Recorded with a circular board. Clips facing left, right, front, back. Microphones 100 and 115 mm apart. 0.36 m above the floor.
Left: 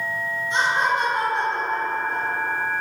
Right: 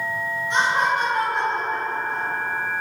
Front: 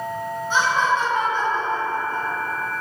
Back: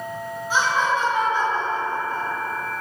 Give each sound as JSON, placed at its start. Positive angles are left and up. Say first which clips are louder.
{"t": 0.5, "sound": "laughter", "louder": "right 1 dB, front 1 dB", "azimuth_deg": -95, "distance_m": 3.0}